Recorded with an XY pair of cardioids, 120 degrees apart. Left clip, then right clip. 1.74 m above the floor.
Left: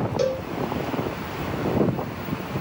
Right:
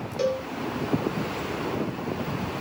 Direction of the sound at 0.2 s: 20° left.